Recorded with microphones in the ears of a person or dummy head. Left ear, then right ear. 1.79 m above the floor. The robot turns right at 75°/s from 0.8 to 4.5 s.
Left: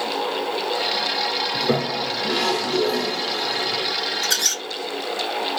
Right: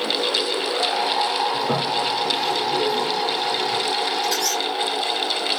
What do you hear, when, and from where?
1.5 s a toilet flushing: 5° left (ahead or behind), 1.0 m; by 3.9 s centre (ahead or behind), 1.0 m
4.2 s a squeak: 40° left (ahead or behind), 1.4 m; by 4.6 s 25° left (ahead or behind), 1.4 m